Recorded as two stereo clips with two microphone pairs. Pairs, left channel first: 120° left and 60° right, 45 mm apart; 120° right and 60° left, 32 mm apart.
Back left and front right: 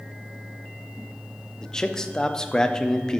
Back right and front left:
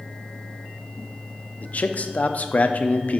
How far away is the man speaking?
About 0.5 m.